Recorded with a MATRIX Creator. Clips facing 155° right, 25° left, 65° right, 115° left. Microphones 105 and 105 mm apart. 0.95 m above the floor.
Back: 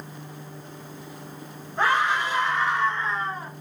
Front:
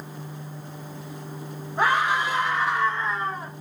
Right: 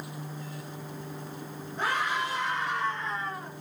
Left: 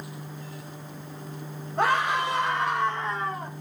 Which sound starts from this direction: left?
A scream, at 1.8 s.